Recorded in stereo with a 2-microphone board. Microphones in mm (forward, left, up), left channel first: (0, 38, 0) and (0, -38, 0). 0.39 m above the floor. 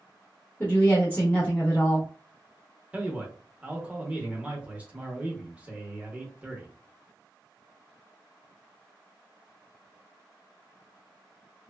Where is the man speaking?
20° right (ahead or behind), 0.8 m.